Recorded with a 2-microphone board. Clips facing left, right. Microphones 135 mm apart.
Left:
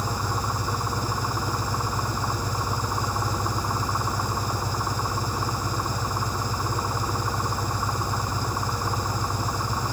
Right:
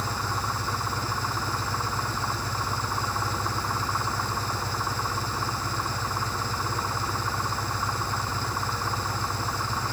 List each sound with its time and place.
0.0 s an engine running: 15° left (ahead or behind)